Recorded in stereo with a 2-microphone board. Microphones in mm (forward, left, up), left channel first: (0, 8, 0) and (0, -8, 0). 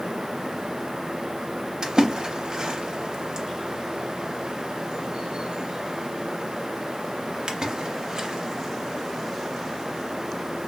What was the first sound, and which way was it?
A splash, 60° right (ahead or behind).